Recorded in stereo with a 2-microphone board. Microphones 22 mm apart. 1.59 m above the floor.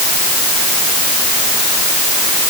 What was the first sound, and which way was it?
Only background noise.